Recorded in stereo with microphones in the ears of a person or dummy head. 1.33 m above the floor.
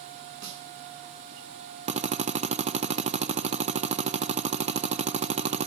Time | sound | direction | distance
0.4 | a snare drum | 75° right (ahead or behind) | 9.5 m
1.9 | a drill | 35° right (ahead or behind) | 1.1 m